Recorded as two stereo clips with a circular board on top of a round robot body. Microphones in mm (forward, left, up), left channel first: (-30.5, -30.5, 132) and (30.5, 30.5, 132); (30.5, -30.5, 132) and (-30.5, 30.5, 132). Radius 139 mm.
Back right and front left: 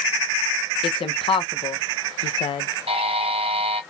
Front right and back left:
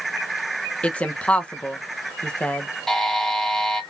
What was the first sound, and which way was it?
A woman speaking, 120° right.